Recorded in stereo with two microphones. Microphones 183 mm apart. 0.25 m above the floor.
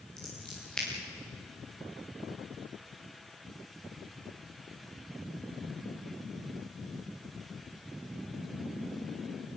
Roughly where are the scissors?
Centre.